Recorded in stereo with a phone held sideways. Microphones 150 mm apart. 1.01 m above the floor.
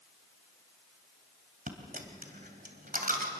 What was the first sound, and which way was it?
A dropped coin, 75° right (ahead or behind).